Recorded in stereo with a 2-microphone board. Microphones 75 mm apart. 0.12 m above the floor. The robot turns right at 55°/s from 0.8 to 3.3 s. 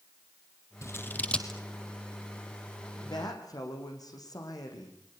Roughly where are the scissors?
Left.